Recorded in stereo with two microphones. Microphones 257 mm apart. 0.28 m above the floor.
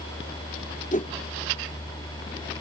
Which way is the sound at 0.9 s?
30° left (ahead or behind).